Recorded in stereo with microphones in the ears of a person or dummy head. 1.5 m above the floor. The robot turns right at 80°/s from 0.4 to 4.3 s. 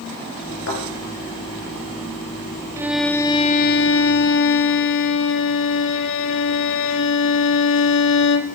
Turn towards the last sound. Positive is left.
turn(degrees=105)